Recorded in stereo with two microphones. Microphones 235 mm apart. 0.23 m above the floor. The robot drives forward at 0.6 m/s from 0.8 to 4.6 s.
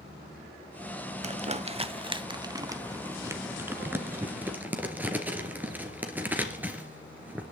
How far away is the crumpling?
About 0.5 m.